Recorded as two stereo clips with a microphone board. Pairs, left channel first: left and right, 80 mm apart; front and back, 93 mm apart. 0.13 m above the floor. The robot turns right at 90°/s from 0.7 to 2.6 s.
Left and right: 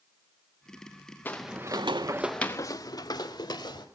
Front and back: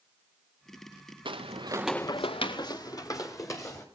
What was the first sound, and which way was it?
Footsteps, 155° left.